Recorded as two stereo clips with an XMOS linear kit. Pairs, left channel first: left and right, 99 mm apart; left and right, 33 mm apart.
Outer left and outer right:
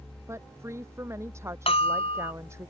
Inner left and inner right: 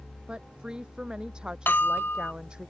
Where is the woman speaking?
30° right (ahead or behind).